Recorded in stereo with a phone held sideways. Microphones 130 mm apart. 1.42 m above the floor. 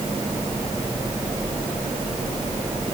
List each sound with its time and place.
Only background noise.